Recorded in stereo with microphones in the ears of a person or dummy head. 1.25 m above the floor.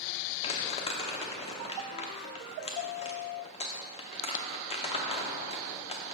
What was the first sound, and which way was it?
Crumpling, 35° left (ahead or behind).